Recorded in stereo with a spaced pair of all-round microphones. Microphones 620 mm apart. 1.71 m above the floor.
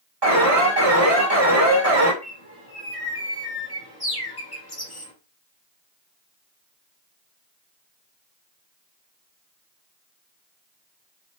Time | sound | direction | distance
0.2 | an alarm | 40° right (ahead or behind) | 1.5 m
2.2 | a bird | 40° left (ahead or behind) | 0.8 m